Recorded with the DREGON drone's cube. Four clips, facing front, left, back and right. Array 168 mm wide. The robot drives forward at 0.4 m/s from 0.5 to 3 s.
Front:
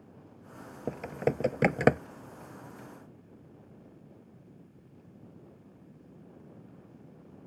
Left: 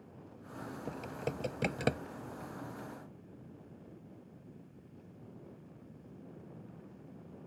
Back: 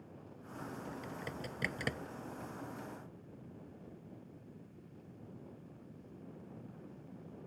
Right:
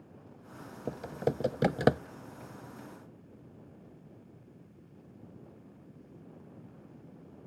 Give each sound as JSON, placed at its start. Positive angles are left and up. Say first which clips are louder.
{"t": 0.9, "sound": "typing on a keyboard", "louder": "right 8 dB, front 13 dB", "azimuth_deg": -25}